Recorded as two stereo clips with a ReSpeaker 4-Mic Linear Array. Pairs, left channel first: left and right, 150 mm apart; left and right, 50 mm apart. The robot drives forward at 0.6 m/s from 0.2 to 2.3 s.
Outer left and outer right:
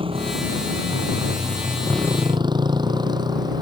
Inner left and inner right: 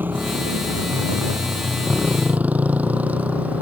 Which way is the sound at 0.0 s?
35° right (ahead or behind).